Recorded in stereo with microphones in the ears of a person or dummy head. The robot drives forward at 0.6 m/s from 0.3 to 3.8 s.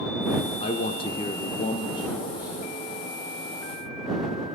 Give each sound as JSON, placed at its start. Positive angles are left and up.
{"t": 0.6, "sound": "a man speaking", "side_deg": 30, "distance_m": 0.7}